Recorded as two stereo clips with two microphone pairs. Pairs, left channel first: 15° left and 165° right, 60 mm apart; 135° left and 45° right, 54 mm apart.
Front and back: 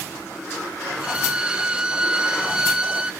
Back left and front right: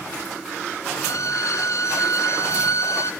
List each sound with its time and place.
0.9 s a violin: 120° left, 1.3 m